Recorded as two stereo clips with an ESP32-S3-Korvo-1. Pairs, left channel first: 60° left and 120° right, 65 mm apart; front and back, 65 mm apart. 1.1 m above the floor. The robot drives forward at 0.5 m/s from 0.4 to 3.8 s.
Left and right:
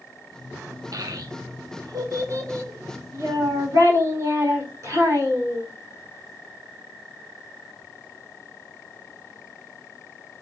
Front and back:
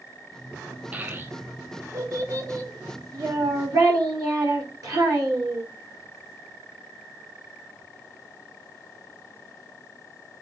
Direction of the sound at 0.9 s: 115° right.